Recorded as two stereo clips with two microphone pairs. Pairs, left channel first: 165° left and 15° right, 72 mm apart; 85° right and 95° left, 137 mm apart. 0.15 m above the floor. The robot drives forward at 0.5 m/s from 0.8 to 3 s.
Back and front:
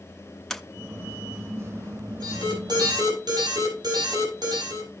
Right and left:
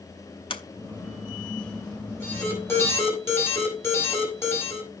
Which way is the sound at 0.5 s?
115° right.